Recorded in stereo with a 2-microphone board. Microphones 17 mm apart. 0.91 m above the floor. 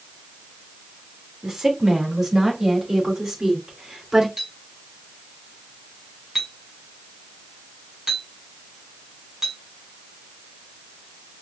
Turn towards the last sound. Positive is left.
turn(degrees=-30)  # may be behind; listen again after turning